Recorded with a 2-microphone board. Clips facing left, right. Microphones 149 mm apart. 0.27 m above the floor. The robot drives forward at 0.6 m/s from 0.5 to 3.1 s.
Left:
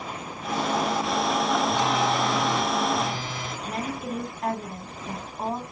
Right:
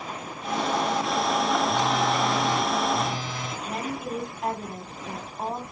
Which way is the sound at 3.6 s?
5° right (ahead or behind).